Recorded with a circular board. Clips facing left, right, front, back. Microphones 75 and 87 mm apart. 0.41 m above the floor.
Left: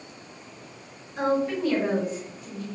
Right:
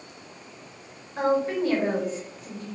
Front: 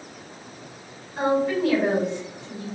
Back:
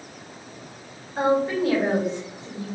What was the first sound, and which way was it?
A woman speaking, 135° right.